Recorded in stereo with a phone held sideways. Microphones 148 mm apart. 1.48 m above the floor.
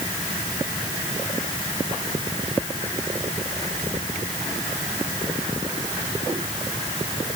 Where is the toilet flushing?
No toilet flushing in this recording.